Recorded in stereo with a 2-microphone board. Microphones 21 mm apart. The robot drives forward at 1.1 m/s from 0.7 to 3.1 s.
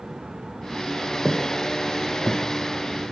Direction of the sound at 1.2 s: 25° left (ahead or behind).